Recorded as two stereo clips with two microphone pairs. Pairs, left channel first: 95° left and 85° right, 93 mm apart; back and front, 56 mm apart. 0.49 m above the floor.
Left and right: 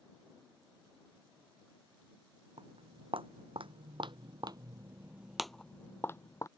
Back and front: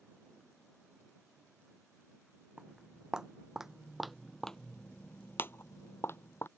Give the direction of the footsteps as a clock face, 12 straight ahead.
2 o'clock.